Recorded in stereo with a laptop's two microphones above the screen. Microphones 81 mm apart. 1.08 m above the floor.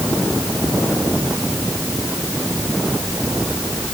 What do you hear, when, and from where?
Only background noise.